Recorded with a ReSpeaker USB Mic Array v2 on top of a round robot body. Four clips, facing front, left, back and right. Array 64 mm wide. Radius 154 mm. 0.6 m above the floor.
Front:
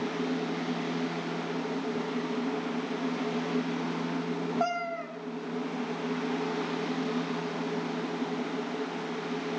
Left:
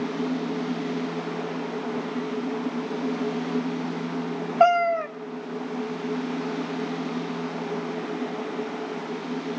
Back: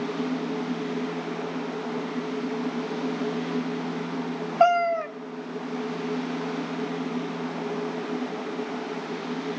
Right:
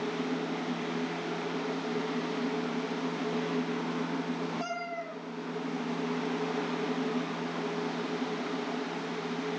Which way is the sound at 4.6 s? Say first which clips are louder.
Left 17 dB, back 16 dB; 110° left.